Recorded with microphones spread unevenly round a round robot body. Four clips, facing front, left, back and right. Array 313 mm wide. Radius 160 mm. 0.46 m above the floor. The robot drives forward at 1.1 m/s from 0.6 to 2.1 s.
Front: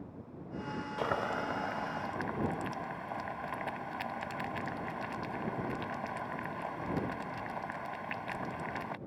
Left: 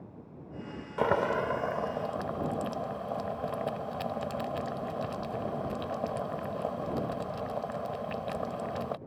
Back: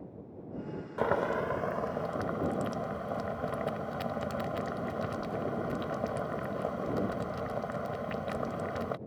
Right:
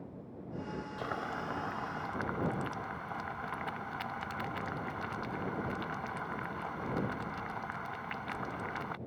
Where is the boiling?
110° left; by 9.0 s 145° left.